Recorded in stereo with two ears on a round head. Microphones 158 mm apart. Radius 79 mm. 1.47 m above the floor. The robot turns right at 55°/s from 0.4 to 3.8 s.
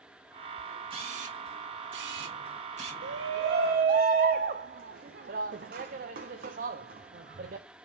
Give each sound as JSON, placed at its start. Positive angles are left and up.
{"t": 0.9, "sound": "a camera shutter", "side_deg": -30, "distance_m": 1.9}
{"t": 3.0, "sound": "a shout", "side_deg": -70, "distance_m": 0.6}